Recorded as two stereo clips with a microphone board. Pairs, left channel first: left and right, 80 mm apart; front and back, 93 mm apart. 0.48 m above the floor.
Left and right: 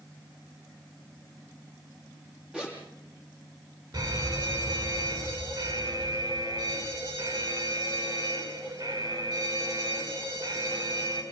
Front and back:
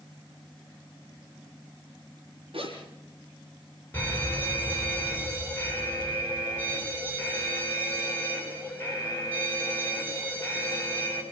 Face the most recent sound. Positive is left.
turn(degrees=-65)